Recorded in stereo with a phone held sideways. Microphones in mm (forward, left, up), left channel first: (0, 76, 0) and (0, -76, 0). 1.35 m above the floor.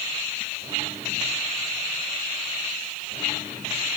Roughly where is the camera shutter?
No camera shutter in this recording.